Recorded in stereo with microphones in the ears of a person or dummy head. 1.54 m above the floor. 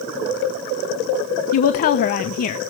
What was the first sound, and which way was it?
A woman speaking, 45° left (ahead or behind).